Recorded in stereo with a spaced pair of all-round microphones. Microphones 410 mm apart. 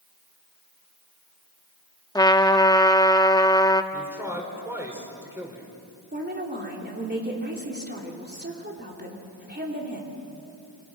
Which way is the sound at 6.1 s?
25° right (ahead or behind).